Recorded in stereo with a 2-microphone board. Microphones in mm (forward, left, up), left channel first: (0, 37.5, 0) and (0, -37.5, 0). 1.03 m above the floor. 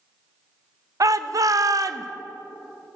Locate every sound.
1.0 s a shout: 55° right (ahead or behind), 0.6 m